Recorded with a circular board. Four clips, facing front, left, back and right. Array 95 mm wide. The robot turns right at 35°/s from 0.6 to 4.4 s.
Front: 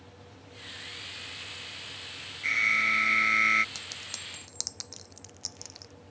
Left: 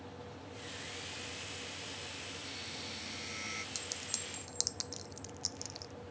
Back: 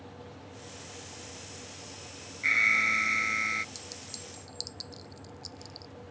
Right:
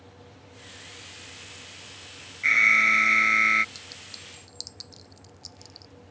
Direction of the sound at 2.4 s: 100° right.